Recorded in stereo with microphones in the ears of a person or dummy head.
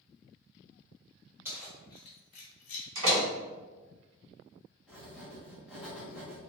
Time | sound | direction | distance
1.4 | keys jangling | 15° right (ahead or behind) | 0.6 m
3.0 | a door slam | 85° right | 1.6 m
4.9 | writing | 10° right (ahead or behind) | 0.6 m